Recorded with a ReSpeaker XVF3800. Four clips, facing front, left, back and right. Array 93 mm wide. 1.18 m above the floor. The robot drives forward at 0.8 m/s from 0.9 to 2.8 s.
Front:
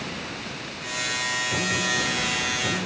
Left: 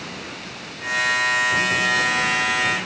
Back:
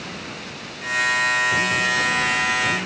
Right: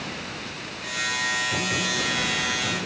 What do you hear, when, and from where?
Only background noise.